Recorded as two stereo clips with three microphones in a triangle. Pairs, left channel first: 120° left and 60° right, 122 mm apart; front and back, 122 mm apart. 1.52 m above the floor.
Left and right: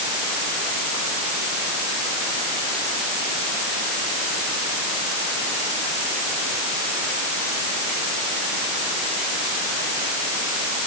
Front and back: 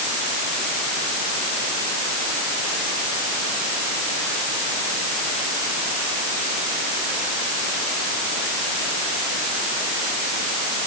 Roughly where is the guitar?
No guitar in this recording.